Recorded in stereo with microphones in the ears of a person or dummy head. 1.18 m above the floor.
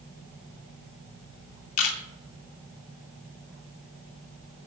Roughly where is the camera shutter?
Left.